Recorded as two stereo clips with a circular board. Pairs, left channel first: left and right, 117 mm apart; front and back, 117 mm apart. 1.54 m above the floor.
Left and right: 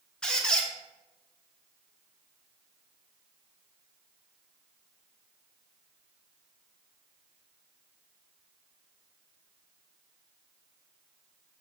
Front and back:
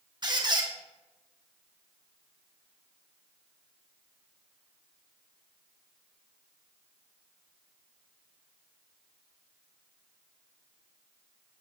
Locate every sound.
0.2 s a squeak: 165° left, 1.0 m